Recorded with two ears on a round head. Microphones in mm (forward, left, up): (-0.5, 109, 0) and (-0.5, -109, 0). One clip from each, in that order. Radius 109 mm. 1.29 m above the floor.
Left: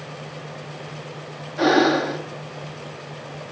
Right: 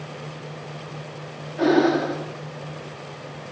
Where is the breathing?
45° left (ahead or behind), 2.5 m.